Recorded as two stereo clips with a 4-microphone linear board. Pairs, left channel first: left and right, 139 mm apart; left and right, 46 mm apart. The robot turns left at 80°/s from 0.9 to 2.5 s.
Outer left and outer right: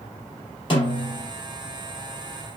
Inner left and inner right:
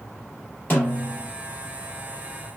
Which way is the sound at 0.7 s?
40° left.